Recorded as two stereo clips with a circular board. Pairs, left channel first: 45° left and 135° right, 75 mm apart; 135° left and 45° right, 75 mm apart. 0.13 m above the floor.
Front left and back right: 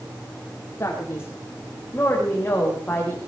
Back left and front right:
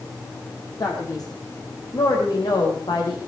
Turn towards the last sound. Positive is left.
turn(degrees=115)